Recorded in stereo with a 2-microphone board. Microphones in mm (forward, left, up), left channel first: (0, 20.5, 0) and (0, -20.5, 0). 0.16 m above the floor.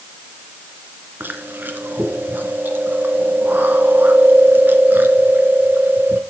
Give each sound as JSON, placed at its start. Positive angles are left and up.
{"t": 1.2, "sound": "chewing", "side_deg": -55, "distance_m": 1.9}